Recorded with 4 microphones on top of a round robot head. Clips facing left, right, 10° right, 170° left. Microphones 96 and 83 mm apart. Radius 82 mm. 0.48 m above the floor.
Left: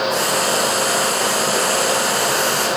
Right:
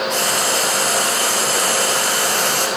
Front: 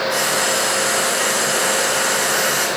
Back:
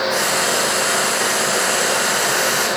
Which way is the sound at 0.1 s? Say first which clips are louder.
Left 2 dB, even; 100° right.